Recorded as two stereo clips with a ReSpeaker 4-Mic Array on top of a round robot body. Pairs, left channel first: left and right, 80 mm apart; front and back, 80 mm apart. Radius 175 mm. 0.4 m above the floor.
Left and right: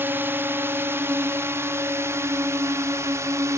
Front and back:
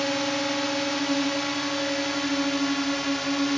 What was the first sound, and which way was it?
A drone, 85° right.